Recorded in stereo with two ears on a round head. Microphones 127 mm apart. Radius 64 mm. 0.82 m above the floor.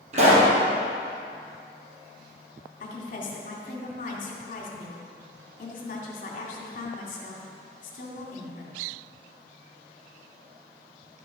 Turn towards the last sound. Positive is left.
turn(degrees=60)  # may be behind; listen again after turning